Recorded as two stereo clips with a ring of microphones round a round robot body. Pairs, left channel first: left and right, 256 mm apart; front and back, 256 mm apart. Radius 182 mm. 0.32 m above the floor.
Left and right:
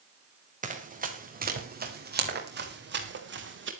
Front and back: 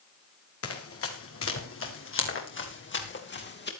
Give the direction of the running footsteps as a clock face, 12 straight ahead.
1 o'clock.